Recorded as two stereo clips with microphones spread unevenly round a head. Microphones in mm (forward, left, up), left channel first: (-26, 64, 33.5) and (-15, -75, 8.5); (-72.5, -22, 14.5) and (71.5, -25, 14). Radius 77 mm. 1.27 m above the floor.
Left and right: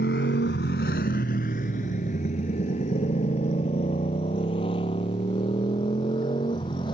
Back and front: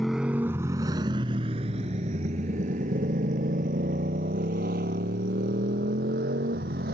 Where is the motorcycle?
90° left; by 6.9 s 35° left.